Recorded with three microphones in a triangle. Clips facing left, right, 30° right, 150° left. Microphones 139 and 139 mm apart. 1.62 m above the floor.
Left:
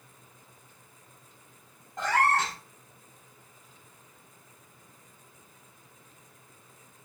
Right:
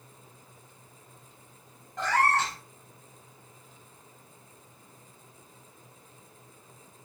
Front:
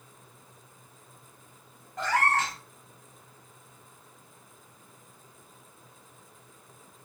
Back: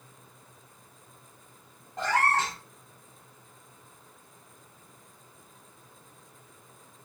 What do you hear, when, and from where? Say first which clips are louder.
2.0 s a cat meowing: even, even; 135° left, 1.3 m